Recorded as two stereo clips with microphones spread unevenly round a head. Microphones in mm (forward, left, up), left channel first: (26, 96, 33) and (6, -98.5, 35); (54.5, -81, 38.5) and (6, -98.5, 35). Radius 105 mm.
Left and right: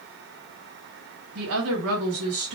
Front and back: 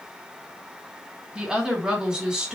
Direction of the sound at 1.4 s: 85° right.